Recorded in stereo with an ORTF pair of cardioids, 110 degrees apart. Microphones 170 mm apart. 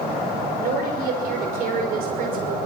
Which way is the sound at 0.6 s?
65° right.